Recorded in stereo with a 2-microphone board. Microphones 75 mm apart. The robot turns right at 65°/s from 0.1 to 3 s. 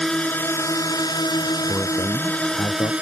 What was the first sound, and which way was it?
A drone, 10° left.